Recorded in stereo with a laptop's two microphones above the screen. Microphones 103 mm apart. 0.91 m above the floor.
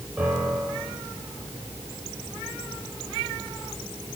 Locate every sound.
0.2 s a piano: 15° right (ahead or behind), 9.5 m